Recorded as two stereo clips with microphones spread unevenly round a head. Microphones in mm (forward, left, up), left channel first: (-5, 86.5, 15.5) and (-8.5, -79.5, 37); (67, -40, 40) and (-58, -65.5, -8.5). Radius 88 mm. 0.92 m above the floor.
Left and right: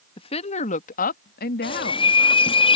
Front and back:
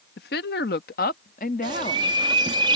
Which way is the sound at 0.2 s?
30° left.